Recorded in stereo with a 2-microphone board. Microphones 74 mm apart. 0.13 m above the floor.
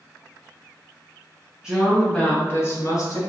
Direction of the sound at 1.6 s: 10° right (ahead or behind).